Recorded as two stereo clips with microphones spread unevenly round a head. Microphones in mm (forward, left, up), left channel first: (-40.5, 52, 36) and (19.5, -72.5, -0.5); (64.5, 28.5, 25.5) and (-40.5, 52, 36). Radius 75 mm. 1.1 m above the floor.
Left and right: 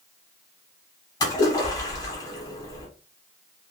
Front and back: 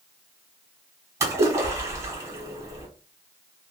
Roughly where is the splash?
Behind left.